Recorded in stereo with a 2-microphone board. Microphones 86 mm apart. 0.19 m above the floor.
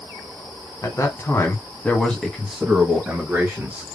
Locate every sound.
0.8 s a man speaking: 40° left (ahead or behind), 1.5 m; by 3.8 s 20° right (ahead or behind), 1.9 m